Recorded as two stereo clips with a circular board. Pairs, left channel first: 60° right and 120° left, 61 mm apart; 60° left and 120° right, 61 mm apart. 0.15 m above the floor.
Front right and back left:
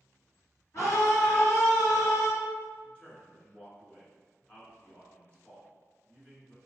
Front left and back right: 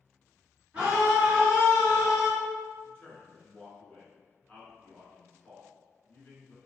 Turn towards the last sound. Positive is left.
turn(degrees=0)